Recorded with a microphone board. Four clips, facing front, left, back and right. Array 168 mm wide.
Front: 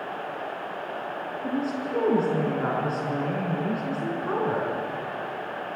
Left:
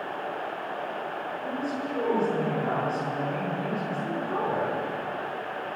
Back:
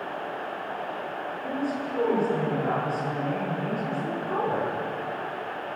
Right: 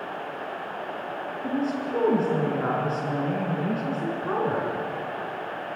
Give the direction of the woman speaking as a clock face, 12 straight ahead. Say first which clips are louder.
Right 5 dB, front 2 dB; 2 o'clock.